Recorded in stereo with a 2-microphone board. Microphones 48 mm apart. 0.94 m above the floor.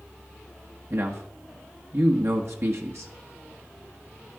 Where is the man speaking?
60° right (ahead or behind), 1.5 m.